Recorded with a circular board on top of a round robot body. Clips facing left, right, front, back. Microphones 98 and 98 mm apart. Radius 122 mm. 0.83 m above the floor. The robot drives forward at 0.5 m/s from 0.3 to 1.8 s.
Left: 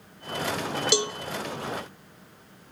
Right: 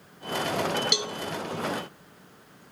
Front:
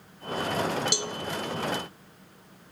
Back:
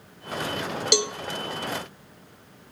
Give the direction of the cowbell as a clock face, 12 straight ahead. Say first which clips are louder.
Left 6 dB, back 8 dB; 7 o'clock.